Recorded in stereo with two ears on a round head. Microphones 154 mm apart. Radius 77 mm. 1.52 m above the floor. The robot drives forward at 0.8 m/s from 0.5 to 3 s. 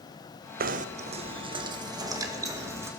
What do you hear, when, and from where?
0.6 s knocking: 55° right (ahead or behind), 0.8 m; by 2.9 s 15° right (ahead or behind), 2.5 m